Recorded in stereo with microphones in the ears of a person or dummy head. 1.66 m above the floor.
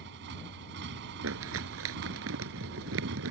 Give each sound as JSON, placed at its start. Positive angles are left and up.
{"t": 0.0, "sound": "a motorcycle", "side_deg": -60}
{"t": 1.2, "sound": "crumpling", "side_deg": -75}